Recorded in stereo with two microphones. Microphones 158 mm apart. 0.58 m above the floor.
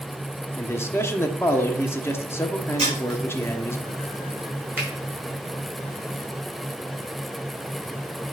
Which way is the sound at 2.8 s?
40° right (ahead or behind).